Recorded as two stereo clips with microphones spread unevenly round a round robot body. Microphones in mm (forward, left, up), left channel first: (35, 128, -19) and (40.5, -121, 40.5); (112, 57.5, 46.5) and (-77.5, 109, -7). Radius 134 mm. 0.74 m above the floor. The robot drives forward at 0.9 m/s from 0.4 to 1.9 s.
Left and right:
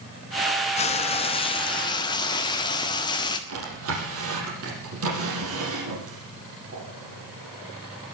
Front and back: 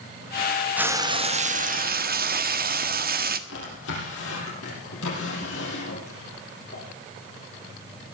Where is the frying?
105° left, 0.9 m; by 3.4 s 155° left, 1.5 m.